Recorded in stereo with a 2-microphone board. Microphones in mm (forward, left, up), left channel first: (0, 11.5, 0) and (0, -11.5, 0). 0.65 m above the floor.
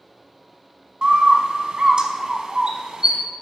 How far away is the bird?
About 0.7 m.